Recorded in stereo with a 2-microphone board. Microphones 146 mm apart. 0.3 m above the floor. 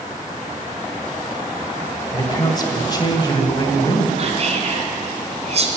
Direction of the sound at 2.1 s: 25° left (ahead or behind).